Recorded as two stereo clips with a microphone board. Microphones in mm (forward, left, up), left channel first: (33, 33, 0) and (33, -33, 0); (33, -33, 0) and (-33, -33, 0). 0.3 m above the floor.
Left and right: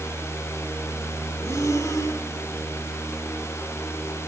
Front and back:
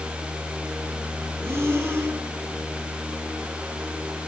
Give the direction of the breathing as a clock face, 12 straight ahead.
8 o'clock.